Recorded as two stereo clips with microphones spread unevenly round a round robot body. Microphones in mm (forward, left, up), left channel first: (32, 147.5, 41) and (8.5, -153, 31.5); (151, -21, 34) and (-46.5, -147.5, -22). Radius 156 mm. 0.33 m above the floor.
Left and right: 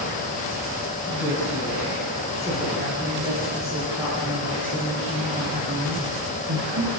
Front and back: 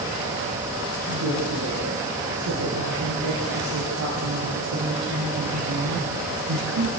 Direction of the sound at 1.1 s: 170° left.